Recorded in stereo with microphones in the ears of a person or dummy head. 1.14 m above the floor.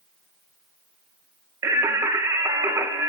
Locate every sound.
1.6 s singing: 10° right (ahead or behind), 0.8 m